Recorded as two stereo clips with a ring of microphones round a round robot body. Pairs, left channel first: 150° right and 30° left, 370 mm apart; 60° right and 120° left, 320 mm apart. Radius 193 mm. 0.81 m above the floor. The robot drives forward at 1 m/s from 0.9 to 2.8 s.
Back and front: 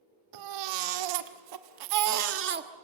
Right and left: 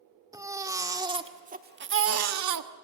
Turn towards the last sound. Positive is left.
turn(degrees=105)